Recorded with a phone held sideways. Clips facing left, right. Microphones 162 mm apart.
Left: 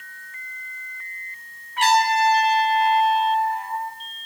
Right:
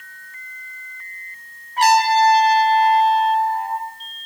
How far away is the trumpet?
About 6.5 m.